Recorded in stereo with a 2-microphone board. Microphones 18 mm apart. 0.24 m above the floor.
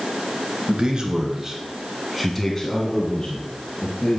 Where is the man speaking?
55° right (ahead or behind), 3 m; by 4.2 s 55° left (ahead or behind), 3.5 m.